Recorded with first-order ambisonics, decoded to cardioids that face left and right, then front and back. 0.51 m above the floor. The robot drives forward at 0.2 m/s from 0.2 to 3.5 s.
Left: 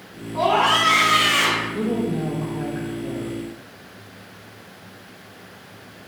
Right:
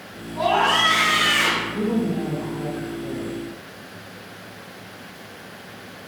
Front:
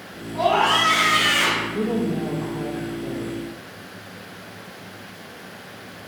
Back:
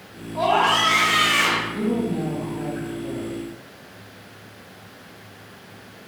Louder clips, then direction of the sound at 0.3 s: Left 1 dB, even; 75° left.